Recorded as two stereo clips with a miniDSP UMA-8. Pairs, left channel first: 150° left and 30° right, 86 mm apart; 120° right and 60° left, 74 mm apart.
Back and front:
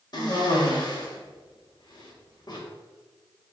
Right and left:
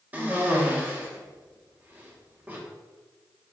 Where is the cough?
125° left, 1.3 m.